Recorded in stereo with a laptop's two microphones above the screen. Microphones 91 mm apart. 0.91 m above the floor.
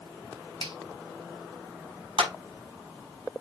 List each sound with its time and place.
0.6 s a finger snap: 70° right (ahead or behind), 1.2 m
2.2 s a clap: 90° right, 5.5 m